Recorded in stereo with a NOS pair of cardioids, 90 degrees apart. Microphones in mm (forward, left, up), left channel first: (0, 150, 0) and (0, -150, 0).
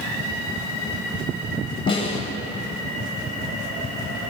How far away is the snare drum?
About 9 m.